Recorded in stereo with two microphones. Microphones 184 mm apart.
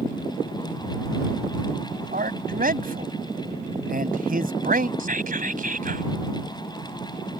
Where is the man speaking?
55° right (ahead or behind).